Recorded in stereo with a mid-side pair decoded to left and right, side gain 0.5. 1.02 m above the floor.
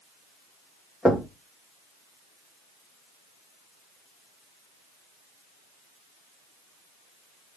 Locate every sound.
1.1 s knocking: 5° left, 1.1 m